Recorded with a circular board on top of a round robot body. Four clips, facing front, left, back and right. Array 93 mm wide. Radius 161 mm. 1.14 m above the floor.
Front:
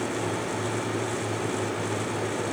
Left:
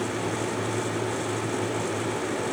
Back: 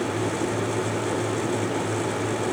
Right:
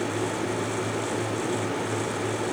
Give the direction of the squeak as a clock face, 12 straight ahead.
No squeak in this recording.